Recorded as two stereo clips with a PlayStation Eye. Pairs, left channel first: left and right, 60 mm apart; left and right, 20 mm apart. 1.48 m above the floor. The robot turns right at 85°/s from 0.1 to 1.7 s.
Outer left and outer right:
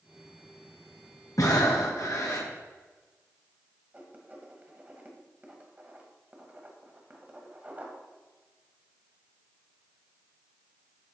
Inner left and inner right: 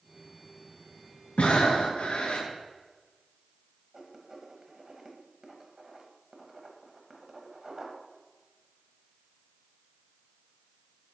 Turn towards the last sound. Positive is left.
turn(degrees=-25)  # may be behind; listen again after turning